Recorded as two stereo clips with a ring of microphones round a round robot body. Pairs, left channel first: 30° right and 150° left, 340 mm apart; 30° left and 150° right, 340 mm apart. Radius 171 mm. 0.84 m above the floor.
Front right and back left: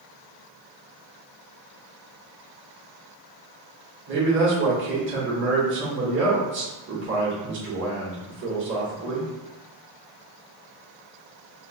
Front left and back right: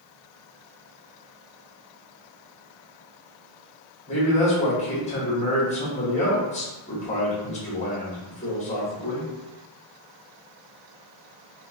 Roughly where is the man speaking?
Left.